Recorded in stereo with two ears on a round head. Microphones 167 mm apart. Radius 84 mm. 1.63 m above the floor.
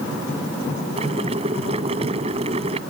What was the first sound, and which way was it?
Boiling, 35° right (ahead or behind).